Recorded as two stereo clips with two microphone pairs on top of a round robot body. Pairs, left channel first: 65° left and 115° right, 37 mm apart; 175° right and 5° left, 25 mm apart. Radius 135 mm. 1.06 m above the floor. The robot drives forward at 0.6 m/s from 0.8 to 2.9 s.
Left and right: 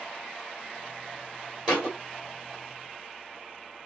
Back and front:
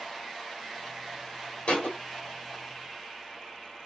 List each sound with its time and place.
1.7 s a thud: 175° right, 1.8 m